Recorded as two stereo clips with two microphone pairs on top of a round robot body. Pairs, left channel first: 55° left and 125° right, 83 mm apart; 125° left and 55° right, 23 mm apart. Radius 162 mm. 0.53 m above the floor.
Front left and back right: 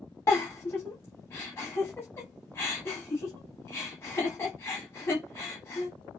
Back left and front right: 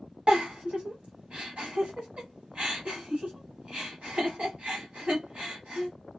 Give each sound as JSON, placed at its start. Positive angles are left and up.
{"t": 0.3, "sound": "a giggle", "azimuth_deg": -15, "distance_m": 0.6}